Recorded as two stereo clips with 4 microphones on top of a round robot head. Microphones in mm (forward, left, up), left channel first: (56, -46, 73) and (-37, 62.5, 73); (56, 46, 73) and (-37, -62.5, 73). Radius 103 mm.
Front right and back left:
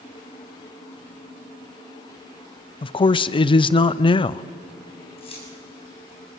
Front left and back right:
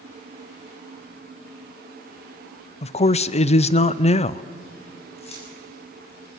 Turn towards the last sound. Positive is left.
turn(degrees=0)